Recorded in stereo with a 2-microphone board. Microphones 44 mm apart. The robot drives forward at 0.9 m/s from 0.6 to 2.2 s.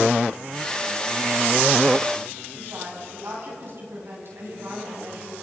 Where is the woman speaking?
60° right (ahead or behind), 9.5 m.